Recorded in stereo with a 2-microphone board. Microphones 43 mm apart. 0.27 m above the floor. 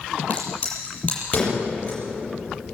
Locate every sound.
0.3 s a crack: 35° left (ahead or behind), 8 m